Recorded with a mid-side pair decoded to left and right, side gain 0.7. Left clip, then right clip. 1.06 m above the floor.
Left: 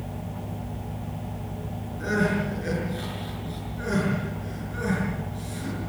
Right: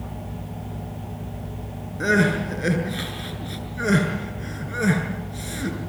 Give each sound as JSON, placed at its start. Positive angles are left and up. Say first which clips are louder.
{"t": 2.0, "sound": "crying", "louder": "right 5 dB", "azimuth_deg": -45, "distance_m": 7.5}